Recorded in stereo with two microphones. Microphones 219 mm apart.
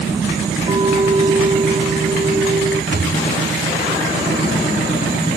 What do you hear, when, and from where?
0.7 s a clink: 25° right (ahead or behind)
2.9 s a thud: 50° right (ahead or behind)